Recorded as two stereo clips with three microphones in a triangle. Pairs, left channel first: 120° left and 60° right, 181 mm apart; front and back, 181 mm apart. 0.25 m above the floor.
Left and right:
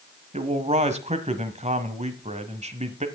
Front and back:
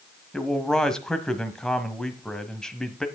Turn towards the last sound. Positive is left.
turn(degrees=-85)